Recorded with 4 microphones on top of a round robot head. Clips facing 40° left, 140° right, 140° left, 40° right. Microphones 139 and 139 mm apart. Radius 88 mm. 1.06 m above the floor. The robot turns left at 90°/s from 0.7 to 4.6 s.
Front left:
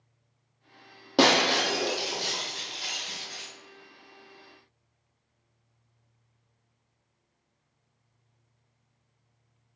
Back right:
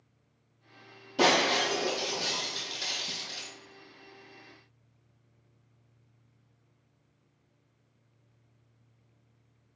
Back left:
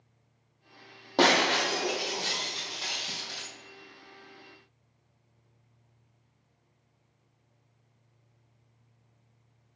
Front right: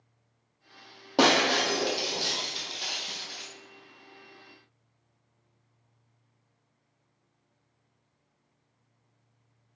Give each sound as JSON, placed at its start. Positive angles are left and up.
{"t": 1.2, "sound": "breaking glass", "azimuth_deg": 35, "distance_m": 2.0}